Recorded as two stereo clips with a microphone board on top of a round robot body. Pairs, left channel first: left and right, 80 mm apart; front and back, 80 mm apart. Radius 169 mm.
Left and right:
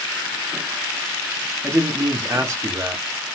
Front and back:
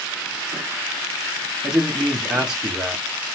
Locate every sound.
1.6 s a man speaking: 100° right, 1.0 m